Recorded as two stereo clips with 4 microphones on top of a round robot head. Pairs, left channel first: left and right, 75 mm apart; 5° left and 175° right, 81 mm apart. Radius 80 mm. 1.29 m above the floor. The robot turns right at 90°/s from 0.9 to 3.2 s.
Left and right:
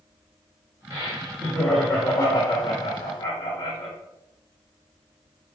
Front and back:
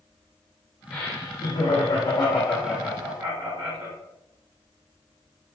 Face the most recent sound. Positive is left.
turn(degrees=120)